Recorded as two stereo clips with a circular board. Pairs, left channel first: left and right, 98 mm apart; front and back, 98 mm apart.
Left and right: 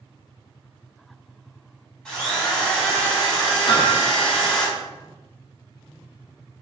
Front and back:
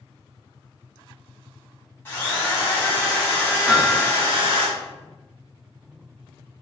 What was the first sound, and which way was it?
A drill, 15° left.